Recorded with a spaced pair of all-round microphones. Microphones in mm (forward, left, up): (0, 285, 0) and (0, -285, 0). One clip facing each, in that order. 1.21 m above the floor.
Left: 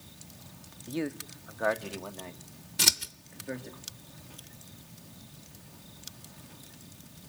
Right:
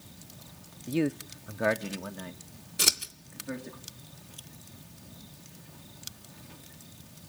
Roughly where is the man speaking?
Right.